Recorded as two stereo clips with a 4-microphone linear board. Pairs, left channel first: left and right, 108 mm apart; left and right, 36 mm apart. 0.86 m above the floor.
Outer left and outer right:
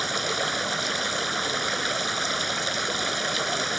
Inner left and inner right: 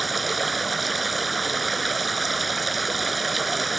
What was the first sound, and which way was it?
Running water, centre (ahead or behind).